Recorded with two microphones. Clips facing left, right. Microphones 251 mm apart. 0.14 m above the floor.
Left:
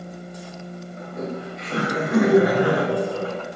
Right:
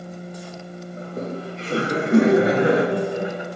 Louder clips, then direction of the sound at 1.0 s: Right 1 dB; 35° right (ahead or behind).